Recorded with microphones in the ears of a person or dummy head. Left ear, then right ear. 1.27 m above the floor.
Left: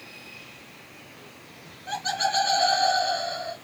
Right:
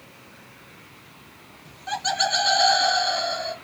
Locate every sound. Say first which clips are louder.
1.6 s laughter: right 3 dB; 10° right (ahead or behind), 0.8 m; by 3.5 s 55° right (ahead or behind), 1.5 m